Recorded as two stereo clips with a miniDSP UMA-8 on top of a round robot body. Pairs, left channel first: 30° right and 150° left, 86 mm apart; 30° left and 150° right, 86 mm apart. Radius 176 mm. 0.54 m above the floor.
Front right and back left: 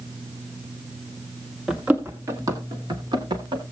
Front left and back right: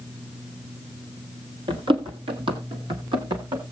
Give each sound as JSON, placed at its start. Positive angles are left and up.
{"t": 1.7, "sound": "running footsteps", "azimuth_deg": -130, "distance_m": 0.9}